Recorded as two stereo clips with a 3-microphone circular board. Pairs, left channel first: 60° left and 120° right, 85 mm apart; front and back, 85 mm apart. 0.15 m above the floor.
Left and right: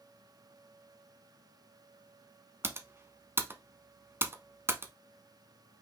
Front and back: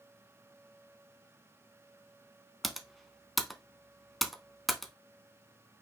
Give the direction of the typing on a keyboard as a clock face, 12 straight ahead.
3 o'clock.